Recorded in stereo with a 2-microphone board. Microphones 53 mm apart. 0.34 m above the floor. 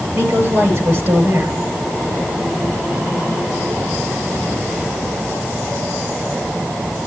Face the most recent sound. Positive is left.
turn(degrees=-35)  # may be behind; listen again after turning